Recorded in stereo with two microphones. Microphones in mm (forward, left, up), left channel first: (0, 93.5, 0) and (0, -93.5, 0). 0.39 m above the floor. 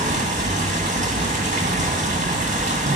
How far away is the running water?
About 1.6 m.